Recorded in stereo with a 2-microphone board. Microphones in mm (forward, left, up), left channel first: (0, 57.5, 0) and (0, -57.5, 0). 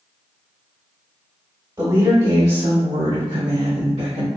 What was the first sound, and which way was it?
A woman speaking, 40° right (ahead or behind).